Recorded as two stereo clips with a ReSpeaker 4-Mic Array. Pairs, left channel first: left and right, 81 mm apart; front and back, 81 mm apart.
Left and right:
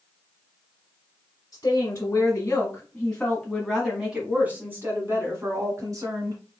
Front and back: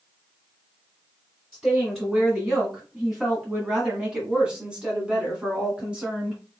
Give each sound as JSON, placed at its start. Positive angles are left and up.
{"t": 1.5, "sound": "a woman speaking", "azimuth_deg": 90, "distance_m": 1.9}